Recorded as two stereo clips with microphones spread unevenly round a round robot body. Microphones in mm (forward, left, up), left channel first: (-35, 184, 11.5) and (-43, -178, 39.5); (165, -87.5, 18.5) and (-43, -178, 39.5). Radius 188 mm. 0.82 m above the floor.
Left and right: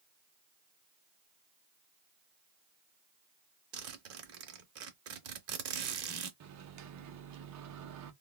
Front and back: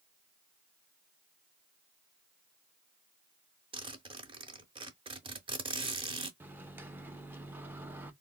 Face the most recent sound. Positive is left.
turn(degrees=-70)